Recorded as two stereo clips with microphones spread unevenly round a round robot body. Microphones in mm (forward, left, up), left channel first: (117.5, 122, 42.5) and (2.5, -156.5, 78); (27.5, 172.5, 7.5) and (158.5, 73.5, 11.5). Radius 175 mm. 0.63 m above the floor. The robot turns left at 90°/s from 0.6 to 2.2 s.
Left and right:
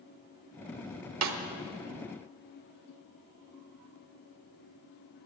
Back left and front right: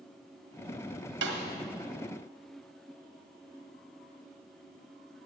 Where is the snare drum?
75° right, 1.0 m; by 1.4 s 90° right, 1.0 m.